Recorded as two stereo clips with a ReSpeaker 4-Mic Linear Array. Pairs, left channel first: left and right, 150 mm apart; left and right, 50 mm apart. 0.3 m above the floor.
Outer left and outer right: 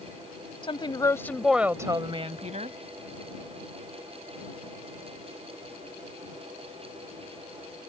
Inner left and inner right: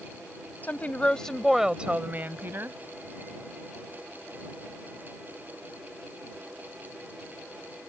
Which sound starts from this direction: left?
A woman speaking, at 0.6 s.